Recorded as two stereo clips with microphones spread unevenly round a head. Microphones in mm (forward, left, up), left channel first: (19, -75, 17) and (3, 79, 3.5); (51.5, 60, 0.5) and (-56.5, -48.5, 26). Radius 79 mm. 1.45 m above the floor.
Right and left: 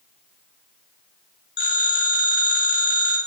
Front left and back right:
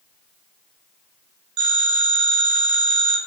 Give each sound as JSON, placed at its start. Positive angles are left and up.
{"t": 1.6, "sound": "a phone ringing", "azimuth_deg": -110, "distance_m": 5.0}